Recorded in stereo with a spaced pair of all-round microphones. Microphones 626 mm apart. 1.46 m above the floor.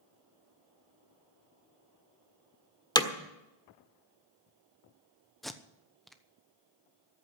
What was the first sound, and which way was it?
Hammering, 5° left (ahead or behind).